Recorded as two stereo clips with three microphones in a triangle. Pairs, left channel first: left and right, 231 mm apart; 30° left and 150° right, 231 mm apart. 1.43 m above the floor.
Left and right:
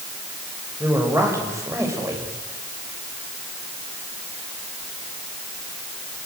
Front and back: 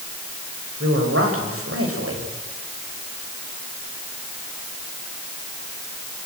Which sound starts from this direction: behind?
A man speaking, at 0.8 s.